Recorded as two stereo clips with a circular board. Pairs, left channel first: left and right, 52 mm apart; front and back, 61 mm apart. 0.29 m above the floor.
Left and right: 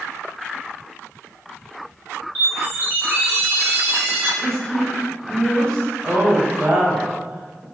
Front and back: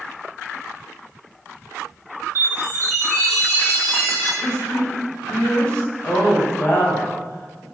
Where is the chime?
40° right, 1.5 m.